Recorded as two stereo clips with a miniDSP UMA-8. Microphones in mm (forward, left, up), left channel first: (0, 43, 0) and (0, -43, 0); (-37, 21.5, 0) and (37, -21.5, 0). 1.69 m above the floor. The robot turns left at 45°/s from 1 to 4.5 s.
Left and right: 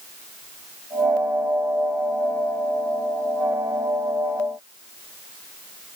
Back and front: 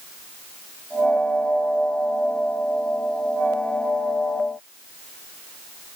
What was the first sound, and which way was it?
Only background noise.